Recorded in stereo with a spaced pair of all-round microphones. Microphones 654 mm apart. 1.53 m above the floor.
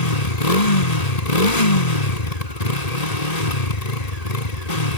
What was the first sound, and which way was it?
A motorcycle, 75° left (ahead or behind).